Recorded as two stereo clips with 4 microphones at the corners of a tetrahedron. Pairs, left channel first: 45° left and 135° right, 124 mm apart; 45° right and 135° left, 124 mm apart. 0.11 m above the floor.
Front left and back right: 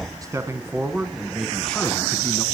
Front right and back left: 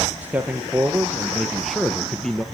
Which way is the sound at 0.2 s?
160° right.